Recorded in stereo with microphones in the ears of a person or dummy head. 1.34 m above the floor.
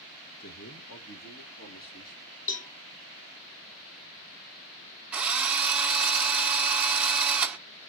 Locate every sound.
0.4 s a man speaking: 45° left (ahead or behind), 0.9 m; by 2.2 s 65° left (ahead or behind), 2.5 m
2.5 s a cowbell: 35° left (ahead or behind), 0.9 m
5.1 s a drill: 5° right (ahead or behind), 0.5 m